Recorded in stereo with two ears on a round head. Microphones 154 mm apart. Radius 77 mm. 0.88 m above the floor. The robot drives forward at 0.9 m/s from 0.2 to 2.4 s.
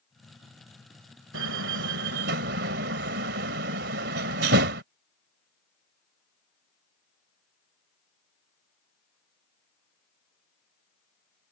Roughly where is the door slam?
Right.